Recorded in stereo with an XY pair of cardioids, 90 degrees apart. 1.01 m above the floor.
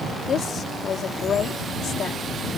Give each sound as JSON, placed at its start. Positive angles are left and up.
{"t": 0.3, "sound": "a woman speaking", "azimuth_deg": 70}